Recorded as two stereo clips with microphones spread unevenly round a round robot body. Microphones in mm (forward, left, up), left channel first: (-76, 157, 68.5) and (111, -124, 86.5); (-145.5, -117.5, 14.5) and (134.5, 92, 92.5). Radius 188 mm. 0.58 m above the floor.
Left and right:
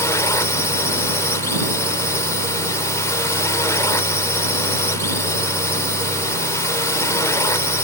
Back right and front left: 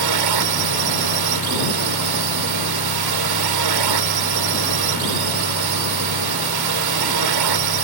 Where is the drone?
45° left.